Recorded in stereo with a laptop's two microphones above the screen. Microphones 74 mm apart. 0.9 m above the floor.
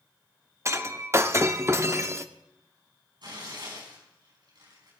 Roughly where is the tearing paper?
Right.